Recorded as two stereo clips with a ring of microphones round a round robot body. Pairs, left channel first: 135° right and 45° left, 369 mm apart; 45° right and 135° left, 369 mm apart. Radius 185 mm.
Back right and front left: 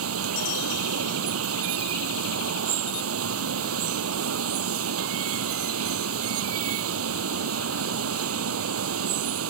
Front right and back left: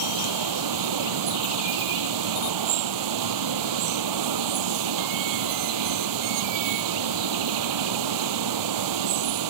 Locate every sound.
0.0 s running water: 100° left